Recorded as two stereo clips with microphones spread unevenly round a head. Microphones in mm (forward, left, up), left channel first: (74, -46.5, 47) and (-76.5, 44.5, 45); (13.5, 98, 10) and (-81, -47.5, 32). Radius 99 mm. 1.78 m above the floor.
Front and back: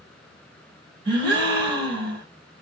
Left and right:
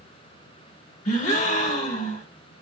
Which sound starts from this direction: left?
A gasp, at 1.1 s.